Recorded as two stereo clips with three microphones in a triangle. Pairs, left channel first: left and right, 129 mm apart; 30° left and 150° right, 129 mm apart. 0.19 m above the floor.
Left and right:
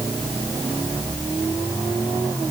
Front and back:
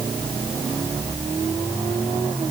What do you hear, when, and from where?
Only background noise.